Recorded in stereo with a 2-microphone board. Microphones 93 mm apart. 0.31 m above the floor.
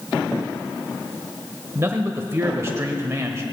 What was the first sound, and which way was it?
A man speaking, 30° right (ahead or behind).